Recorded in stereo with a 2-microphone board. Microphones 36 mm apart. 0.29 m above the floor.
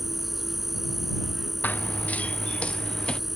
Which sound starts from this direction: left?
Running footsteps, at 1.6 s.